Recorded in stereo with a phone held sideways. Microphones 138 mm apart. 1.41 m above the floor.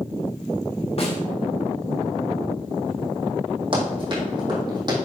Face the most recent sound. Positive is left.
turn(degrees=-30)  # may be behind; listen again after turning